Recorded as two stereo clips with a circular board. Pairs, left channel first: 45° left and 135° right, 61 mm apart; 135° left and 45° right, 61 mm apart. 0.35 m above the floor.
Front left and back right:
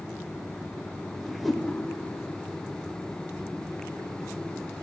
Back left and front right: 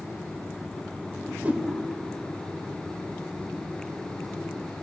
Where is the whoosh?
45° right, 1.3 m.